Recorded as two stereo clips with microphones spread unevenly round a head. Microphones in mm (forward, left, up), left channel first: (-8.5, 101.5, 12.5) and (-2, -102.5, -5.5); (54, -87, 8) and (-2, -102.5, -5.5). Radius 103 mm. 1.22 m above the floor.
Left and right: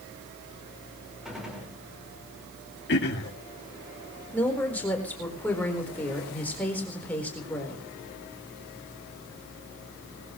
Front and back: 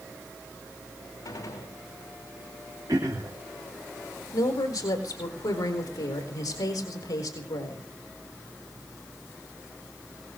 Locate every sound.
1.2 s a gunshot: straight ahead, 5 m
2.9 s throat clearing: 130° left, 2.5 m
4.3 s a woman speaking: 10° left, 4 m